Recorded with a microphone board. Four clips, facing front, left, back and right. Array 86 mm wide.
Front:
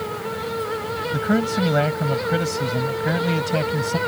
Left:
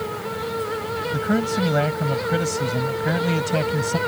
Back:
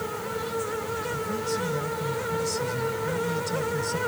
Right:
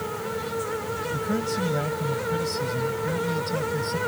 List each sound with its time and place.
1.1 s a man speaking: 30° left; by 4.0 s 50° left